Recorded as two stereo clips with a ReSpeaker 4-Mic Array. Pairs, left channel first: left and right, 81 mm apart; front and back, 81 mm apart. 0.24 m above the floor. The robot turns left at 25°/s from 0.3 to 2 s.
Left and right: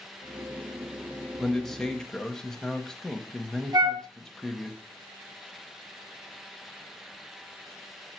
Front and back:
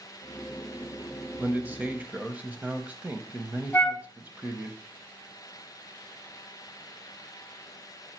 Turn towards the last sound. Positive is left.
turn(degrees=-60)